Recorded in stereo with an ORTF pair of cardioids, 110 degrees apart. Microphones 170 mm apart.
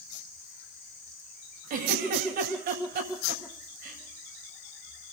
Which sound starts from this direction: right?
A giggle, at 1.7 s.